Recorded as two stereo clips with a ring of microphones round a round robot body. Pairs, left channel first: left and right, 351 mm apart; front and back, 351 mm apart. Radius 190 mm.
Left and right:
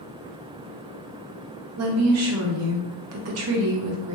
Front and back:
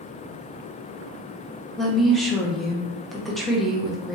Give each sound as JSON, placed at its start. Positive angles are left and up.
{"t": 1.8, "sound": "a woman speaking", "azimuth_deg": -90, "distance_m": 0.7}